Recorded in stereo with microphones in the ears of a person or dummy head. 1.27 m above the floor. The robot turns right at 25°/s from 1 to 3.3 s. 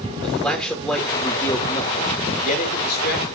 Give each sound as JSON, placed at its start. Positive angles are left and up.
{"t": 0.2, "sound": "a man speaking", "azimuth_deg": 10, "distance_m": 3.0}